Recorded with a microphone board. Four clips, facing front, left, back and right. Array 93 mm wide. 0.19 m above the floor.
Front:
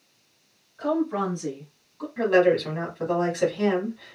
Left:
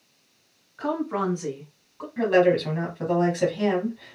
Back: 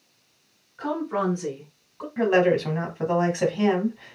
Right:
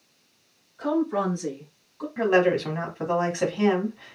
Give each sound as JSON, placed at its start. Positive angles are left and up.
{"t": 0.8, "sound": "a woman speaking", "azimuth_deg": 115, "distance_m": 1.9}
{"t": 2.2, "sound": "a woman speaking", "azimuth_deg": -140, "distance_m": 1.3}